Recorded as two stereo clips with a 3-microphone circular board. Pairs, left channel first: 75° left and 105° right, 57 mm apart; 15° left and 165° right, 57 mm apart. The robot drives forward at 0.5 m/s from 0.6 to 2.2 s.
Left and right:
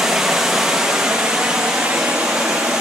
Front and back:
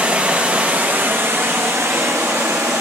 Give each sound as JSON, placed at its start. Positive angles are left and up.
{"t": 0.0, "sound": "running water", "azimuth_deg": -175, "distance_m": 0.9}